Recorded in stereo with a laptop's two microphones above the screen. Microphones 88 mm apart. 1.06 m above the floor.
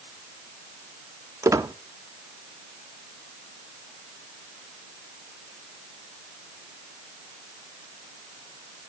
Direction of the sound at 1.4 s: 35° right (ahead or behind).